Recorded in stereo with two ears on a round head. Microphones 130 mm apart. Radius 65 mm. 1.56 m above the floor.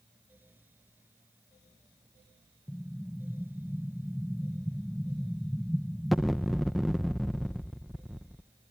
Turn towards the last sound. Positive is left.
turn(degrees=0)  # may be behind; listen again after turning